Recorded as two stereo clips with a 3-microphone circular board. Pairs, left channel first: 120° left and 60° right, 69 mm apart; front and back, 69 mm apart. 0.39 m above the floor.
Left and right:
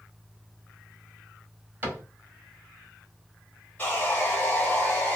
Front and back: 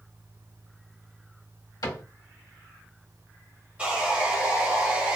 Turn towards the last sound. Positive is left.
turn(degrees=135)